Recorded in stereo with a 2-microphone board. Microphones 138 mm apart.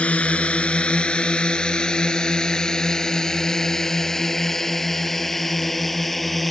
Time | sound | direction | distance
0.0 | a drone | 10° left (ahead or behind) | ?